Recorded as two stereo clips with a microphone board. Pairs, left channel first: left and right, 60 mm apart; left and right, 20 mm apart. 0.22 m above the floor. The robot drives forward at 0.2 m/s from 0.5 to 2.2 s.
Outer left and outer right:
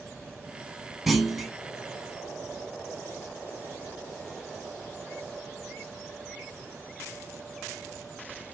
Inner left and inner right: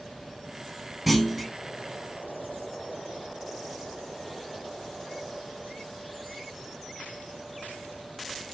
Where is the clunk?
Centre (ahead or behind), 0.8 m.